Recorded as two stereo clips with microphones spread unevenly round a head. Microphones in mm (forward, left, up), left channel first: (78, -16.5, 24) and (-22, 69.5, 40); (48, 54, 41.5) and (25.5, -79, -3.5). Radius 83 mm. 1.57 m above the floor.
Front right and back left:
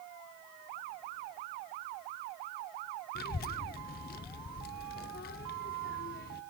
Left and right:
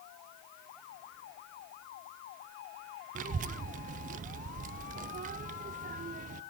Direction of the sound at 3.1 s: 65° right.